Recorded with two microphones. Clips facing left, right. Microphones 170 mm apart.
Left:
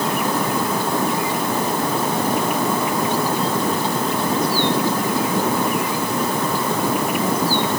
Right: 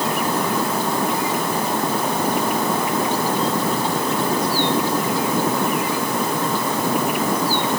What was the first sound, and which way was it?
Only background noise.